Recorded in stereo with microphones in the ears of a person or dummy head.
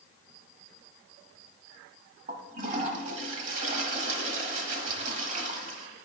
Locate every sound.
2.3 s a toilet flushing: 45° right (ahead or behind), 1.0 m